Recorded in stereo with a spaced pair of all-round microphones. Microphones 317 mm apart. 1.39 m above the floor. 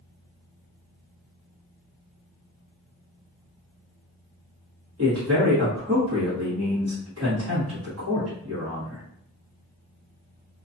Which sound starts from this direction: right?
A man speaking, at 5.0 s.